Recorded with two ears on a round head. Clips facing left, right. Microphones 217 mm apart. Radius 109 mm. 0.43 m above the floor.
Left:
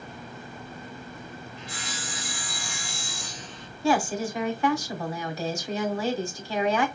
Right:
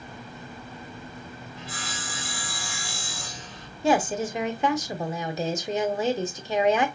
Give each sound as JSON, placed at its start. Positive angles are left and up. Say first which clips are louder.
{"t": 1.6, "sound": "sawing", "louder": "right 1 dB", "side_deg": -40, "distance_m": 2.5}
{"t": 3.8, "sound": "a woman speaking", "louder": "right 1 dB", "side_deg": -20, "distance_m": 0.7}